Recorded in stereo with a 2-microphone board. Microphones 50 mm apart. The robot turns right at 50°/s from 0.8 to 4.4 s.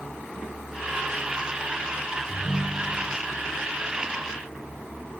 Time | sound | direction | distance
2.3 | a ringtone | 115° right | 3.5 m